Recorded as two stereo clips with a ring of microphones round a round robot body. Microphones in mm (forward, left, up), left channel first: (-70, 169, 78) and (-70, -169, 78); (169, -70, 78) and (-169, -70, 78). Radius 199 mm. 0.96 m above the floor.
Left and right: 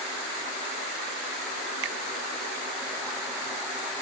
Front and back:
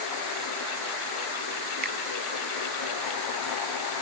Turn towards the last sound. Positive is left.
turn(degrees=-115)